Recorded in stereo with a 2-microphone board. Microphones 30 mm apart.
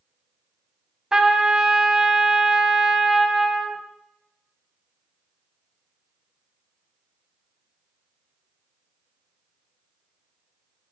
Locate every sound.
1.1 s a trumpet: 20° right (ahead or behind), 1.1 m